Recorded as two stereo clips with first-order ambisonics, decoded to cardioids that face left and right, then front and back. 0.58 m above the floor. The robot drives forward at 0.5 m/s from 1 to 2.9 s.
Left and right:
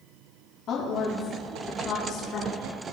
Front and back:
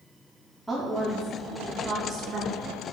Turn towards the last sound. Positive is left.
turn(degrees=135)